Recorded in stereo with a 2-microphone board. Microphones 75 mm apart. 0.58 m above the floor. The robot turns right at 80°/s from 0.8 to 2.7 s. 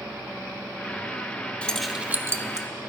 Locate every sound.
1.6 s keys jangling: 15° left (ahead or behind), 0.7 m; by 2.7 s 60° right (ahead or behind), 0.7 m